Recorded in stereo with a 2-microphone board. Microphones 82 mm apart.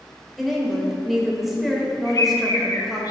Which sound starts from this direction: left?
A bird, at 2.0 s.